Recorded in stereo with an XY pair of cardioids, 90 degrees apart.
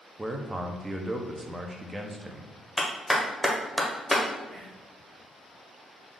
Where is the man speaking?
20° right, 0.7 m.